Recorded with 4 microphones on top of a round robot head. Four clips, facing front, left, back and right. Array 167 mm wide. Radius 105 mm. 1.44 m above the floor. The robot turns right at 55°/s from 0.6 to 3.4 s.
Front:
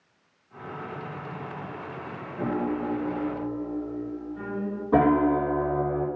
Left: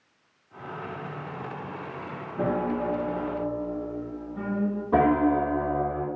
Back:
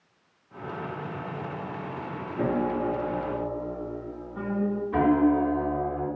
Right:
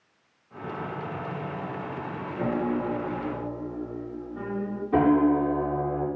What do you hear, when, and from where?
2.4 s a piano: 125° left, 1.9 m; by 4.8 s straight behind, 1.9 m
4.9 s a piano: 35° left, 2.5 m